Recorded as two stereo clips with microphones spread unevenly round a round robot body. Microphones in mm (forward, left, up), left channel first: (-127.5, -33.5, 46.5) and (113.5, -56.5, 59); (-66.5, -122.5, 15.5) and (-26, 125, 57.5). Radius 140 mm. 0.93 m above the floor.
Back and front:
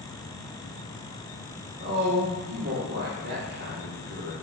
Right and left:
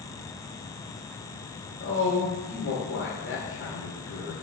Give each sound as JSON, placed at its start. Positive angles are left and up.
{"t": 1.8, "sound": "a woman speaking", "azimuth_deg": -50, "distance_m": 2.5}